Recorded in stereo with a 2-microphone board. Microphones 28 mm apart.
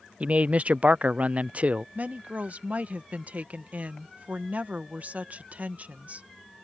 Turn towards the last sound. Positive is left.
turn(degrees=-50)  # may be behind; listen again after turning